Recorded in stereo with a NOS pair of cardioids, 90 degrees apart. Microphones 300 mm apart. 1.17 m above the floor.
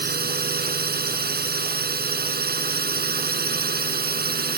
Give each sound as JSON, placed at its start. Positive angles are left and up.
{"t": 0.0, "sound": "a drone", "azimuth_deg": -30}